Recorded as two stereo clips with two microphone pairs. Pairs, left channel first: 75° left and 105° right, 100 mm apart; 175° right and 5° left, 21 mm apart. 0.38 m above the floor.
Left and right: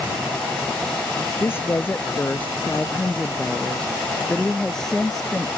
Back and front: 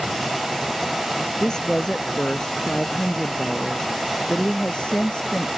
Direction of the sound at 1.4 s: 140° left.